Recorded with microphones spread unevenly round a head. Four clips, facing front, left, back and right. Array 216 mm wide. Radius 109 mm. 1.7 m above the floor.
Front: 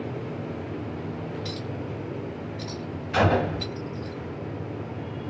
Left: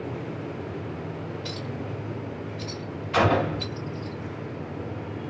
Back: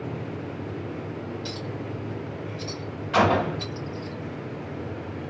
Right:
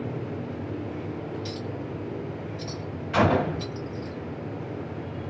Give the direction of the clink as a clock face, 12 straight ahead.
4 o'clock.